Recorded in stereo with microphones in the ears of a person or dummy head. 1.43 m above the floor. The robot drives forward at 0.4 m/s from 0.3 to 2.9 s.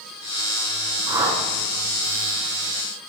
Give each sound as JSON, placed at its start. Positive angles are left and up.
{"t": 1.1, "sound": "a whoosh", "side_deg": -25, "distance_m": 4.0}